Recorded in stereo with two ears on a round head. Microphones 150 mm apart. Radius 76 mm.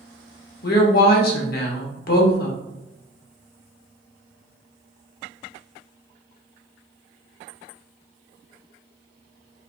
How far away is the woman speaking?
About 1.1 m.